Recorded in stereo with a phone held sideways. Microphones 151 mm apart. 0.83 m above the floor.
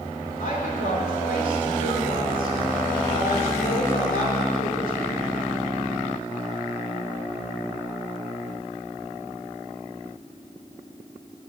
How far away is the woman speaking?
About 3 m.